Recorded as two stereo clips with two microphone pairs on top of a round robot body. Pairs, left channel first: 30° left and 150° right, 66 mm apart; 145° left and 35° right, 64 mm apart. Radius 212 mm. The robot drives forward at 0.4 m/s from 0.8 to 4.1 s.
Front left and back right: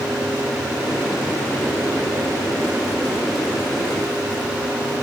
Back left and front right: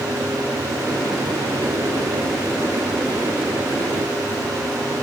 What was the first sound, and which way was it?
Only background noise.